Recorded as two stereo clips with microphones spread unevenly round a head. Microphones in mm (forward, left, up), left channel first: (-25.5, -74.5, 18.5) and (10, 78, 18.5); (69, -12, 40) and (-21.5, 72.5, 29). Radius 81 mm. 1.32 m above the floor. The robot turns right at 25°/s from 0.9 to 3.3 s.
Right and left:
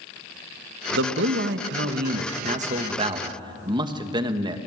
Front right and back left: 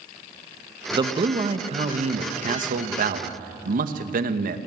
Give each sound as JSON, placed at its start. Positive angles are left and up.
{"t": 0.9, "sound": "a man speaking", "azimuth_deg": 80, "distance_m": 1.7}